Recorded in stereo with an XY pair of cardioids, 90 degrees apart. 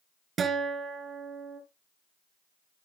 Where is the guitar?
65° right, 3 m.